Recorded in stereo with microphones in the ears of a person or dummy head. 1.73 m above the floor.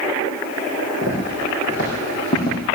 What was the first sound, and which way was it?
Footsteps, 45° left (ahead or behind).